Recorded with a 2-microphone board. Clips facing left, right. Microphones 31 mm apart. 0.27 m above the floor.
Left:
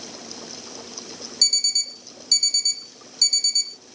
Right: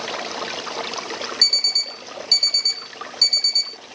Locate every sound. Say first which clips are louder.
0.0 s running water: right 11 dB; 70° right (ahead or behind)
1.4 s an alarm clock: right 3 dB; 25° right (ahead or behind)